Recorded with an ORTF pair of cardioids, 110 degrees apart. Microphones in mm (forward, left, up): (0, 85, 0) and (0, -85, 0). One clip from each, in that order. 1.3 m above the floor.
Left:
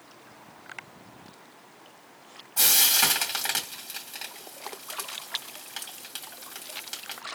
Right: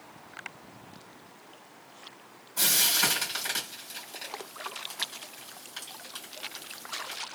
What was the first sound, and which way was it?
Frying, 50° left.